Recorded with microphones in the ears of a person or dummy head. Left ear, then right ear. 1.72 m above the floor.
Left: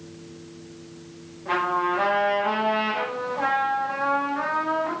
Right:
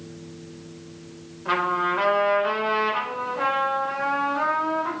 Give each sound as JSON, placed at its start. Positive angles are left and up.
{"t": 1.4, "sound": "a trumpet", "side_deg": -50, "distance_m": 5.5}